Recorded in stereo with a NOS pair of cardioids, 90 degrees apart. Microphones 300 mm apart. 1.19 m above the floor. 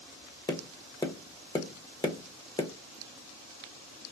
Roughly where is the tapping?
Ahead.